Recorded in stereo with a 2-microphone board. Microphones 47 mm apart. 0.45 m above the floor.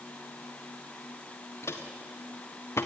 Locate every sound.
1.6 s footsteps: 80° left, 2.5 m; by 2.9 s 75° left (ahead or behind), 1.5 m